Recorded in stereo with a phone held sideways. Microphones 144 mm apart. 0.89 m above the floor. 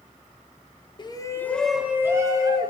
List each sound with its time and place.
1.0 s a shout: 35° left (ahead or behind), 0.6 m; by 2.7 s 30° right (ahead or behind), 0.9 m